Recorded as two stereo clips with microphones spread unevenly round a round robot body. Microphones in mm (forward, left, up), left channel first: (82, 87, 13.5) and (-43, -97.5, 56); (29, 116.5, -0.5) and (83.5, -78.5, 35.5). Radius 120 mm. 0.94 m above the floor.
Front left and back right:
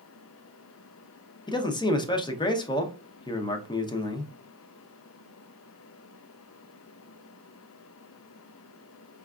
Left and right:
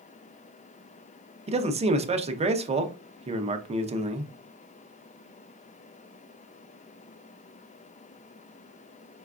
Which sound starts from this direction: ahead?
A man speaking, at 1.5 s.